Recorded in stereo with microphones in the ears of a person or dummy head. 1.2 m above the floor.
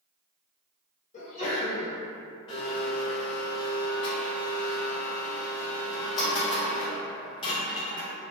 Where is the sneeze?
35° left (ahead or behind), 0.9 m.